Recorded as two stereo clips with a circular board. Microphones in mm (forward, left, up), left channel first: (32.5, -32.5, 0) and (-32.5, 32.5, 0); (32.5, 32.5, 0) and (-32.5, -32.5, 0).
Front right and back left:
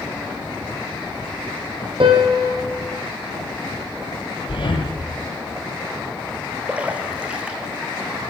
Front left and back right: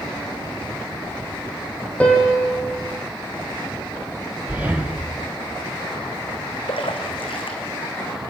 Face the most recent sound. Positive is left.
turn(degrees=60)